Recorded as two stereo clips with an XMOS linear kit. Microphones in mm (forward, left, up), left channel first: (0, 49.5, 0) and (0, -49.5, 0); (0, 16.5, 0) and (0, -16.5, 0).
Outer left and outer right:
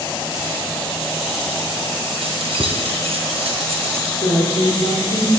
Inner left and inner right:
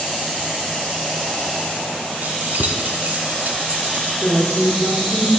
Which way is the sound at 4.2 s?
75° left (ahead or behind).